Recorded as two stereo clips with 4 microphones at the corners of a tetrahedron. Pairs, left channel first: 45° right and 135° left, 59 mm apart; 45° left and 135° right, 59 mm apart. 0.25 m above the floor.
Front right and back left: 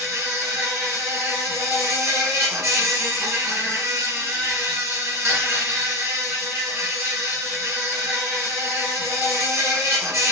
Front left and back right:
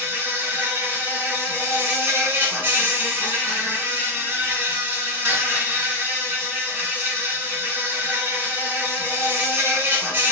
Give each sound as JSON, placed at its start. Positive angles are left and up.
{"t": 0.0, "sound": "an insect", "azimuth_deg": 170, "distance_m": 1.3}